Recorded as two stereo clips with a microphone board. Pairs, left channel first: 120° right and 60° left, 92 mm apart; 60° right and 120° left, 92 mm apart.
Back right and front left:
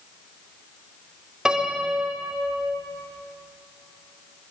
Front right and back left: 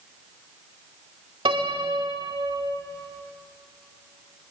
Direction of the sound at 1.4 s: 140° left.